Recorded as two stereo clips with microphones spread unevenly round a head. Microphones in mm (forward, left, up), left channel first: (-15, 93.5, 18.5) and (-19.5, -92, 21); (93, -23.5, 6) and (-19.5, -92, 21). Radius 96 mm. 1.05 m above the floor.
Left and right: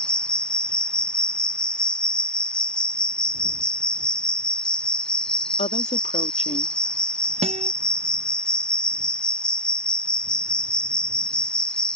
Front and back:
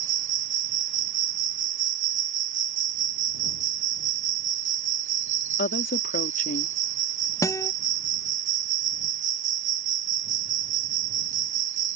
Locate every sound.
0.0 s an insect: 175° left
5.6 s a woman speaking: 30° left
7.4 s a guitar: 30° right